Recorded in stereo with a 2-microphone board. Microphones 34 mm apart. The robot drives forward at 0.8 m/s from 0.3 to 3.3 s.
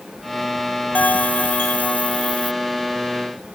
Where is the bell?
60° left (ahead or behind); by 2.5 s 35° left (ahead or behind).